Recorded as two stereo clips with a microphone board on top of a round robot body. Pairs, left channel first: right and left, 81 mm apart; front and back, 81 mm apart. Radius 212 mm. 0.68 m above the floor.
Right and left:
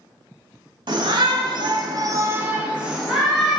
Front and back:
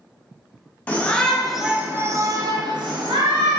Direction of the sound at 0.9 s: 70° left.